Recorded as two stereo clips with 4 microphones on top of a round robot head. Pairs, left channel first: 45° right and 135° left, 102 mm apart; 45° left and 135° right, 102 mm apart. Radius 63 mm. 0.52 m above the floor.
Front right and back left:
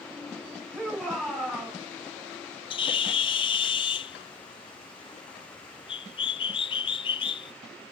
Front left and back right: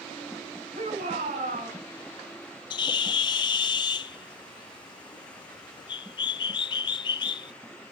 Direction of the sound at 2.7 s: 5° right.